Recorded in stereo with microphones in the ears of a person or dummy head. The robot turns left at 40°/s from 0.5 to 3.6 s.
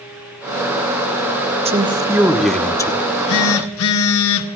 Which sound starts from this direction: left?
A phone buzzing, at 3.0 s.